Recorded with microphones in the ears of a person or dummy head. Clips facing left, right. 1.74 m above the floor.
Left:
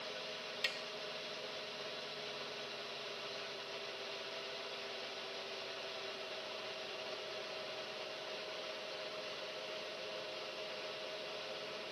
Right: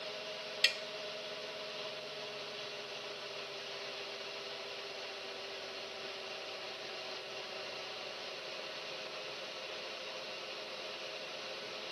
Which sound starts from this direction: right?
Tapping, at 0.6 s.